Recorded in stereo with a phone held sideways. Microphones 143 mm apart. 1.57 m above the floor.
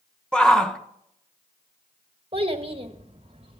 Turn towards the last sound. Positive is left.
turn(degrees=-40)  # may be behind; listen again after turning